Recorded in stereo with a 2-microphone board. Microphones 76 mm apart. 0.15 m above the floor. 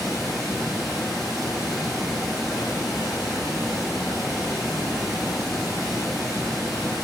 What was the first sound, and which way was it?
Running water, centre (ahead or behind).